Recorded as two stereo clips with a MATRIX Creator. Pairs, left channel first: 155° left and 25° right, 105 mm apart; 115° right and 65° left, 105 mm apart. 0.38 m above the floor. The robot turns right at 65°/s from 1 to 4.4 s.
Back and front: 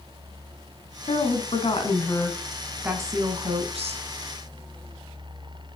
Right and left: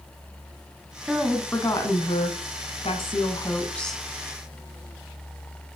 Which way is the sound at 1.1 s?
150° left.